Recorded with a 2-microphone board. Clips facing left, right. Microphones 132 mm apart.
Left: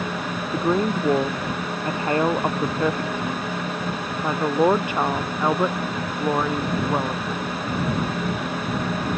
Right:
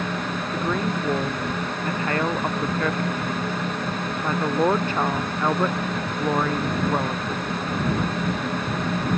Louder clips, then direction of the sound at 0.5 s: Left 5 dB; 30° left (ahead or behind).